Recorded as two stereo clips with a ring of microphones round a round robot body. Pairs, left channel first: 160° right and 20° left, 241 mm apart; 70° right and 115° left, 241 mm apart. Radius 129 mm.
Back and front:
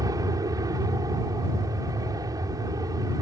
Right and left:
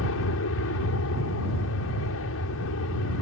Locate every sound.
0.0 s an aircraft: 50° right